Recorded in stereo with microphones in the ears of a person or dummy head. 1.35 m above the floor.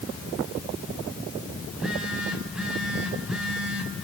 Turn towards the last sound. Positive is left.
turn(degrees=-5)  # may be behind; listen again after turning